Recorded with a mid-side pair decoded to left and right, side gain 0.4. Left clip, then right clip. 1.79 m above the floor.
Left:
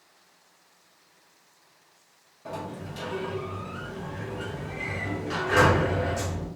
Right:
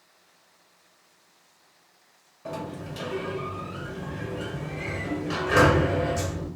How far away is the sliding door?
About 1.3 m.